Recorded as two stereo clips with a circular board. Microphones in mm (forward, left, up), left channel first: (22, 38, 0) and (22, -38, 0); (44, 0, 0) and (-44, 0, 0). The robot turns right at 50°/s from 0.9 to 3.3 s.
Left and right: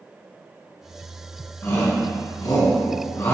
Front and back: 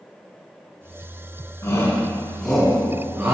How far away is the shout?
About 2 m.